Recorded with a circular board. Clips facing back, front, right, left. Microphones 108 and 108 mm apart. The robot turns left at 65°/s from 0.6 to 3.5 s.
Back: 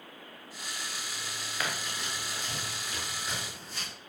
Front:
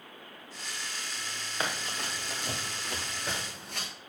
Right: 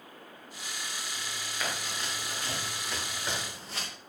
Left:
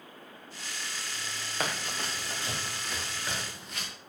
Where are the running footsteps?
60° left, 3.5 m; by 3.9 s 30° right, 6 m.